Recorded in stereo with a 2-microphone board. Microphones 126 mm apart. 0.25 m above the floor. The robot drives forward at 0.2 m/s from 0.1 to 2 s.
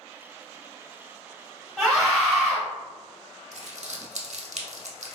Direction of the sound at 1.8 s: 5° left (ahead or behind).